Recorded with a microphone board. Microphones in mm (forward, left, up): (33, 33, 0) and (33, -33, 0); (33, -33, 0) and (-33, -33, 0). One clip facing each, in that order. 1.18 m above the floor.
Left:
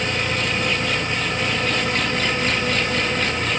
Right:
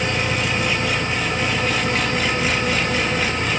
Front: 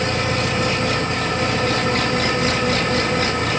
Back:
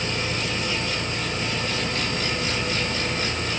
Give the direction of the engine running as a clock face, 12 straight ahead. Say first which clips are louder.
Right 1 dB, front 7 dB; 12 o'clock.